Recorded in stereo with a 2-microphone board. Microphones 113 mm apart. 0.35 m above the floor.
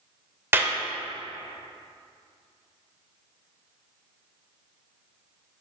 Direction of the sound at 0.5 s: 20° right (ahead or behind).